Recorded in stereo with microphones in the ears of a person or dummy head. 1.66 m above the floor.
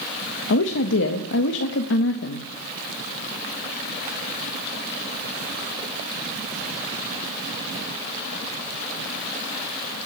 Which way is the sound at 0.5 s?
60° left (ahead or behind).